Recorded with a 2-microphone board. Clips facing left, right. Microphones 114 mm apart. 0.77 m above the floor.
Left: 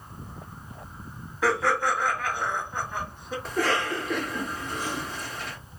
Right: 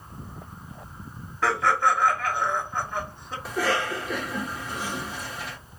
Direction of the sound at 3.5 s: 5° right (ahead or behind).